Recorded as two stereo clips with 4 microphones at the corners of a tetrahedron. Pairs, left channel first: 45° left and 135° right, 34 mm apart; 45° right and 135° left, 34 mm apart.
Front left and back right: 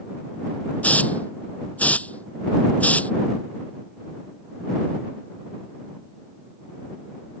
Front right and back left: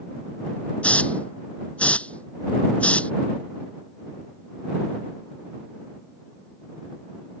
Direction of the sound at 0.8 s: 5° left.